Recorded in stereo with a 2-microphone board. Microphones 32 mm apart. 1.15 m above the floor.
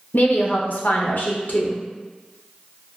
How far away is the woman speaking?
About 0.6 m.